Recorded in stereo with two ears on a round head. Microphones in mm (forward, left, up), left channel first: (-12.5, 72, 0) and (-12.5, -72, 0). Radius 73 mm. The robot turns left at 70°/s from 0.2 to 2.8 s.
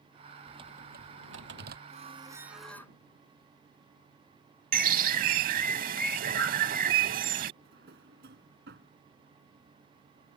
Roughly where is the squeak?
Behind right.